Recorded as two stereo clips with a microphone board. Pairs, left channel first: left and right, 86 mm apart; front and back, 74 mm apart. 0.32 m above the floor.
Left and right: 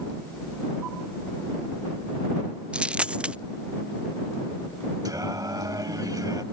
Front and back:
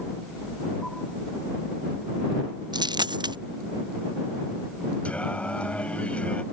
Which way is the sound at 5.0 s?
65° right.